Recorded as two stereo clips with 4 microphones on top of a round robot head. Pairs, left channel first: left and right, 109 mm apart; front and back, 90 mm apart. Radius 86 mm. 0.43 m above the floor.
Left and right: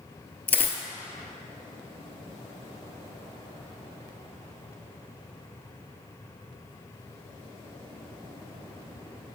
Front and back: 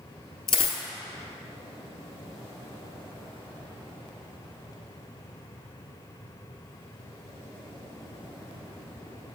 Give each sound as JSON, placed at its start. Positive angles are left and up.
{"t": 0.5, "sound": "a dropped coin", "azimuth_deg": 20, "distance_m": 0.6}